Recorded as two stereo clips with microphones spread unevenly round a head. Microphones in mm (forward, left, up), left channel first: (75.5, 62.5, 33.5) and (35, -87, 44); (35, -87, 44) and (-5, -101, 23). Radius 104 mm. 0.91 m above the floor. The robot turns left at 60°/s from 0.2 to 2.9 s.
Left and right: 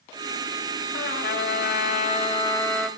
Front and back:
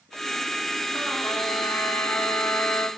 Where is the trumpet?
105° left, 1.8 m; by 2.9 s 10° right, 1.8 m.